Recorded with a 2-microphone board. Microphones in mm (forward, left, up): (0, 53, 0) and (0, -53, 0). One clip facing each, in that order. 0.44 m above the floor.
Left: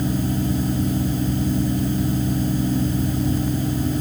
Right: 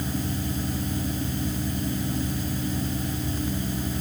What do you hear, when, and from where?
Only background noise.